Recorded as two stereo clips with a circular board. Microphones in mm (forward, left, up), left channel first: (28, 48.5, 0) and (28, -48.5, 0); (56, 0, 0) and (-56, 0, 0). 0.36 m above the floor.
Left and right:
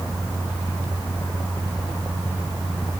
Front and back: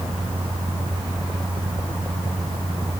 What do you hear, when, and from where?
Only background noise.